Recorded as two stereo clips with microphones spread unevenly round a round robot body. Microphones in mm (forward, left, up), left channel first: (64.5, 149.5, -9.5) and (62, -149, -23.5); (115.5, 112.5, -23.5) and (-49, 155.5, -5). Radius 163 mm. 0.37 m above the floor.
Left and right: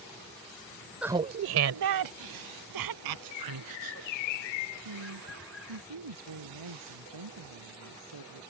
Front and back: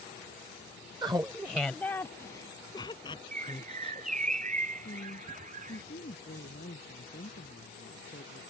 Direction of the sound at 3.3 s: 125° left.